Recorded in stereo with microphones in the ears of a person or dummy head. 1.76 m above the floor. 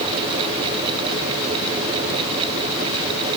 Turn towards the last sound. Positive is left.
No sound to turn to.